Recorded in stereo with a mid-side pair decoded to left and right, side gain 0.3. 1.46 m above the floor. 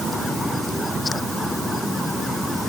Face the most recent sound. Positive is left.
No sound to turn to.